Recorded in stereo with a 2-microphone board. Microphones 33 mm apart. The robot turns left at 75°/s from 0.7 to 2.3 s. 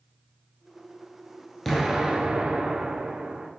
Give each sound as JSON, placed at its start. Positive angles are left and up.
{"t": 1.6, "sound": "an explosion", "azimuth_deg": 10, "distance_m": 1.2}